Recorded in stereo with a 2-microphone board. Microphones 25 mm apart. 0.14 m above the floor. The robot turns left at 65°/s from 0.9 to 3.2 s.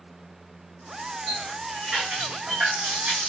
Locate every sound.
1.3 s a running tap: 20° left, 4 m; by 3.3 s 110° right, 4 m